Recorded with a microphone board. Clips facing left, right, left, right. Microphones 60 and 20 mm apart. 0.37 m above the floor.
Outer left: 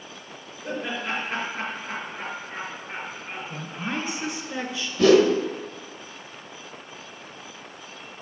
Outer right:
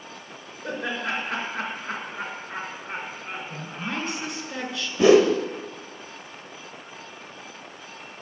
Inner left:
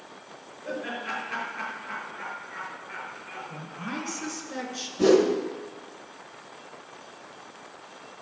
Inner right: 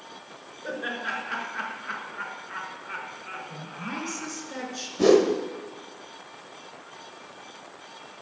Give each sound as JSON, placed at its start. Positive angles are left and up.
{"t": 0.6, "sound": "laughter", "side_deg": -70, "distance_m": 4.5}
{"t": 3.5, "sound": "a woman speaking", "side_deg": 0, "distance_m": 2.5}
{"t": 5.0, "sound": "a whoosh", "side_deg": -20, "distance_m": 0.9}